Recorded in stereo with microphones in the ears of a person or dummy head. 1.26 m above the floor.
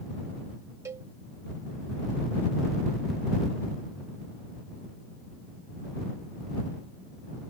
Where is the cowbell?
25° right (ahead or behind).